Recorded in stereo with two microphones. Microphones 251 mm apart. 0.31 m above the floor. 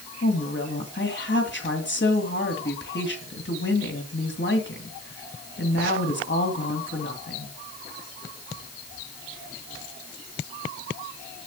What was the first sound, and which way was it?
A woman speaking, 50° left (ahead or behind).